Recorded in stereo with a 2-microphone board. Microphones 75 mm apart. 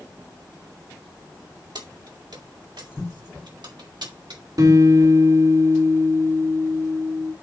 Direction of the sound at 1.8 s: 70° right (ahead or behind).